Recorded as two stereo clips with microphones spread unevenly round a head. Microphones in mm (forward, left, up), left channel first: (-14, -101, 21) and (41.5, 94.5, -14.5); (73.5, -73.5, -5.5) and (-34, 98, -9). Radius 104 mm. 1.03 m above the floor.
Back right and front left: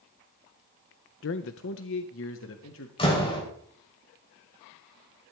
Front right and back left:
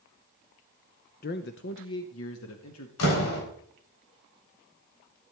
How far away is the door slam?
About 4 m.